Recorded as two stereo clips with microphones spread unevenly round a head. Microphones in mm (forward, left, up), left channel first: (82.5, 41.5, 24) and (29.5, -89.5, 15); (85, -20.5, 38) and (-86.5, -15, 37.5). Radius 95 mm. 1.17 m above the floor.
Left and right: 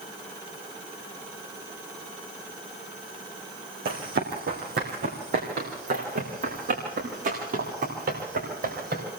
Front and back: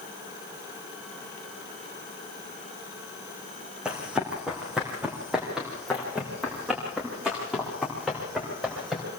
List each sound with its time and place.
3.9 s running footsteps: 95° right, 4.5 m